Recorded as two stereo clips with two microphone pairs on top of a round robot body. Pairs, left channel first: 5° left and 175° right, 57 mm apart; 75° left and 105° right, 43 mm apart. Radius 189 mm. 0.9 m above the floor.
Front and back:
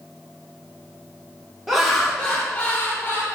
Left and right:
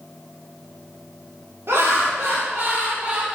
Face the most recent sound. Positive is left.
turn(degrees=-40)